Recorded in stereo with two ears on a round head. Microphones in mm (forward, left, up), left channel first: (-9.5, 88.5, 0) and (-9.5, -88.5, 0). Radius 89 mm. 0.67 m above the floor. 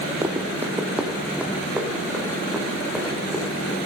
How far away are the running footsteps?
About 1.1 m.